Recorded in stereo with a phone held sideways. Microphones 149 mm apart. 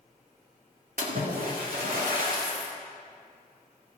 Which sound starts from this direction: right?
A splash, at 1.0 s.